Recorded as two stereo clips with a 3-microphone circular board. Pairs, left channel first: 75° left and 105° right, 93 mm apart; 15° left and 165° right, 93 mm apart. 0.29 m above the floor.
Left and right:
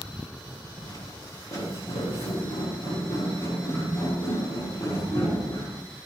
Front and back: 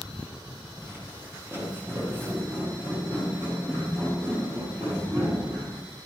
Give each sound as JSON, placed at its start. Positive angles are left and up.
{"t": 0.8, "sound": "footsteps", "azimuth_deg": 130, "distance_m": 6.0}